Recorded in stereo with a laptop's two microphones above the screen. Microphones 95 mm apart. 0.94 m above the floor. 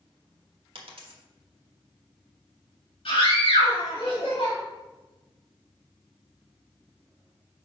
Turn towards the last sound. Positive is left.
turn(degrees=70)  # may be behind; listen again after turning